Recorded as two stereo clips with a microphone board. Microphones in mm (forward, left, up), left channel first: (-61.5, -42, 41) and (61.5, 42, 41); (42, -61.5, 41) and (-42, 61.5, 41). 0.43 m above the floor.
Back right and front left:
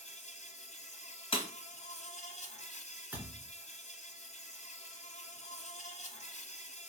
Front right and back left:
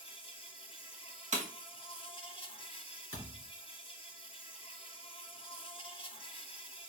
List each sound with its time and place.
0.0 s an insect: 110° right, 0.8 m
1.3 s breaking glass: 160° left, 1.4 m
3.1 s a thud: 115° left, 2.5 m